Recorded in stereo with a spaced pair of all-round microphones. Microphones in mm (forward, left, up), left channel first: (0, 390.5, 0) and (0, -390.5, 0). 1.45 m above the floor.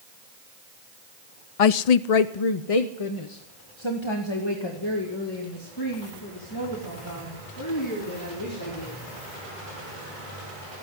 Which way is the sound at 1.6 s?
50° left (ahead or behind).